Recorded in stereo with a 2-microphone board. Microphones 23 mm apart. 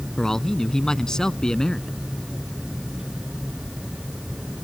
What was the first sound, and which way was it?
A man speaking, 20° left (ahead or behind).